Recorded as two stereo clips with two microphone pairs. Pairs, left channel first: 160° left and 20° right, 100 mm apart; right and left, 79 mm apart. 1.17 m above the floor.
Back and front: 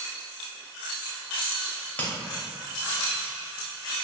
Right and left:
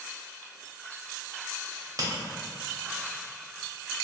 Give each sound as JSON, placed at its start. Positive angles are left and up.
{"t": 1.7, "sound": "a crack", "azimuth_deg": 100, "distance_m": 0.7}